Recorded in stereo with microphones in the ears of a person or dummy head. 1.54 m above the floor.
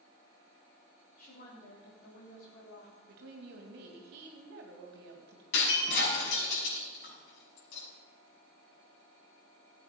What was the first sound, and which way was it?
A woman speaking, 50° left (ahead or behind).